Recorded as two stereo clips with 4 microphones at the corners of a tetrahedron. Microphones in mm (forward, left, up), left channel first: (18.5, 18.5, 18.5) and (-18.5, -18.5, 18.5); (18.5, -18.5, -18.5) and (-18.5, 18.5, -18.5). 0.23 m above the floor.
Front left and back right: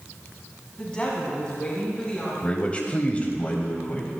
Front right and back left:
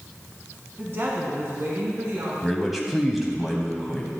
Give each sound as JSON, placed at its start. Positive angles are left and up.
{"t": 0.8, "sound": "a woman speaking", "azimuth_deg": 110, "distance_m": 1.7}
{"t": 2.4, "sound": "a man speaking", "azimuth_deg": 50, "distance_m": 1.0}